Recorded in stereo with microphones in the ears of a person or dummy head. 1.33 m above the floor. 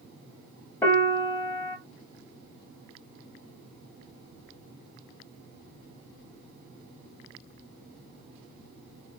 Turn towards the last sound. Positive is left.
turn(degrees=20)  # may be behind; listen again after turning